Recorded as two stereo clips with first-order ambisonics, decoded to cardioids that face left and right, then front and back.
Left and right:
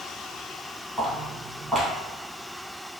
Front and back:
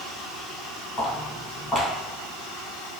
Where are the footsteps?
10° left, 1.8 m.